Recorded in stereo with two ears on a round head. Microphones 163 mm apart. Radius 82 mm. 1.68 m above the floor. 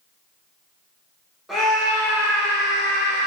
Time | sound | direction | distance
1.5 | a scream | centre (ahead or behind) | 2.5 m